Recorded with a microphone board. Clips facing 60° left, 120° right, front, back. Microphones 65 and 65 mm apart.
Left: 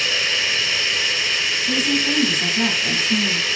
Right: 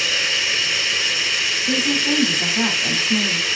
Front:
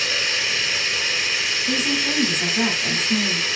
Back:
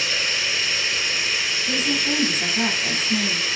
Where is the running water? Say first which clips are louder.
Even, front 1 dB; 35° right, 2.5 m.